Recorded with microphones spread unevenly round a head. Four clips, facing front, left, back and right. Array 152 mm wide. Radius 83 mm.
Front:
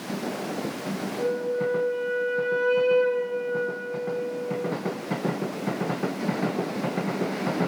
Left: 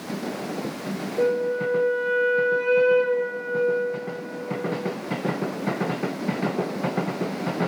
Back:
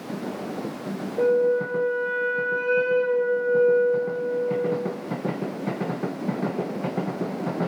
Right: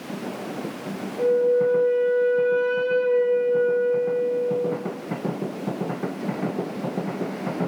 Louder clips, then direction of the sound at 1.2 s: Right 4 dB, back 7 dB; 140° left.